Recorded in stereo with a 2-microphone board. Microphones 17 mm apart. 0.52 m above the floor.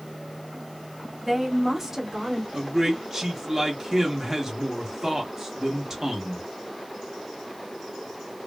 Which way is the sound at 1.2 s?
5° right (ahead or behind).